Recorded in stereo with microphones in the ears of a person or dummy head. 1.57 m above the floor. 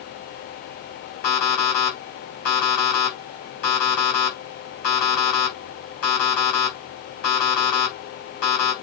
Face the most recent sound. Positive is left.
turn(degrees=50)  # may be behind; listen again after turning